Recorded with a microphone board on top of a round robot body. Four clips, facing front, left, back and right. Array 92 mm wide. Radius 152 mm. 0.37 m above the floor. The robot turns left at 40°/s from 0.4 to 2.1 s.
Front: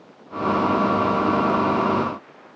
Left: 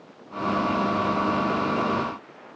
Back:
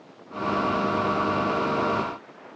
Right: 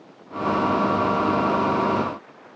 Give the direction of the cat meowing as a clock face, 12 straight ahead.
I don't hear a cat meowing.